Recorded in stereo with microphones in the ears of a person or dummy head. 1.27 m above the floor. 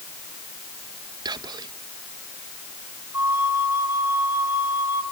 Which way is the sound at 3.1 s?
15° right (ahead or behind).